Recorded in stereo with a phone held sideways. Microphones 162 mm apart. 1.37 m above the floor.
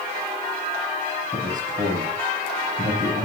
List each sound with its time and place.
1.3 s a man speaking: 55° right (ahead or behind), 8.5 m